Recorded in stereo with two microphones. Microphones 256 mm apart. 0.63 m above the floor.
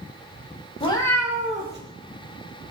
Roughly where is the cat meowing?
Left.